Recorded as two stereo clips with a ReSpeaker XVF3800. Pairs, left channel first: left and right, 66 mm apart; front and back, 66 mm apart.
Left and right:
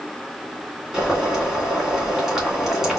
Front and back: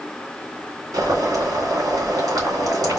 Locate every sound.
0.9 s boiling: 170° right, 2.5 m